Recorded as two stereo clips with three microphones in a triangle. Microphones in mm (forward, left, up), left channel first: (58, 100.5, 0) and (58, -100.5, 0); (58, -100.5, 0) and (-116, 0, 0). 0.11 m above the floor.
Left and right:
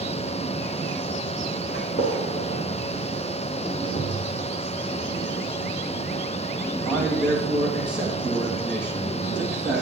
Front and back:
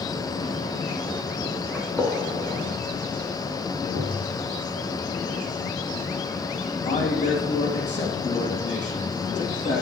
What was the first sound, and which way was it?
A gunshot, 50° left.